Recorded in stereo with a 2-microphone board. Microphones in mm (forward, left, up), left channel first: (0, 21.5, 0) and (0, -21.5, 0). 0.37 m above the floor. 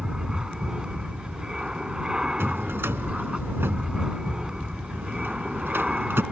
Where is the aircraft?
20° right (ahead or behind).